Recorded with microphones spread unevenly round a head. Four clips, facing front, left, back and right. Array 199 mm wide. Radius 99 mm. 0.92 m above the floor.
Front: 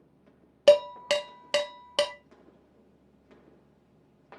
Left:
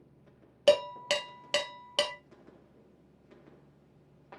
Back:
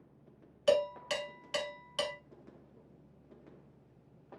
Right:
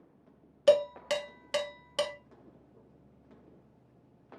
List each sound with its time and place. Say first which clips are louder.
0.7 s dishes clattering: right 1 dB, front 9 dB; 15° left, 0.8 m